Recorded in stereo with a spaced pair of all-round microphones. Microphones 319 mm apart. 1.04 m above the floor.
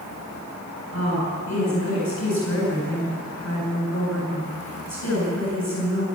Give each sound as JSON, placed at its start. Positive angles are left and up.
{"t": 0.9, "sound": "a woman speaking", "side_deg": 45, "distance_m": 9.5}